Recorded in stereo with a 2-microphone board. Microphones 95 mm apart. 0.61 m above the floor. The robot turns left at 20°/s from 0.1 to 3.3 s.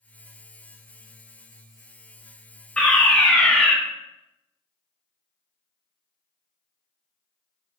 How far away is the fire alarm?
About 1.6 m.